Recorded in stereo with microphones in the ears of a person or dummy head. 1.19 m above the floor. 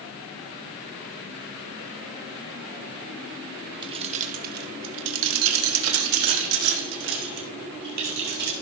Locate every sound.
3.8 s keys jangling: 30° right (ahead or behind), 1.1 m; by 8.5 s 55° right (ahead or behind), 3 m